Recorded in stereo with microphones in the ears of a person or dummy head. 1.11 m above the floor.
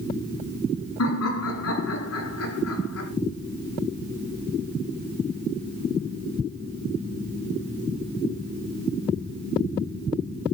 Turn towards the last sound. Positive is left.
turn(degrees=85)